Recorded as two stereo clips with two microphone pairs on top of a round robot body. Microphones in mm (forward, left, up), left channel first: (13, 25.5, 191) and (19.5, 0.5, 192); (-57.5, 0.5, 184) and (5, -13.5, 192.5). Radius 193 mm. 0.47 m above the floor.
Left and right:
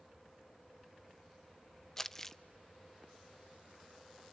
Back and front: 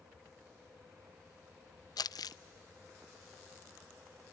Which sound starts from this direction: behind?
Crumpling, at 2.0 s.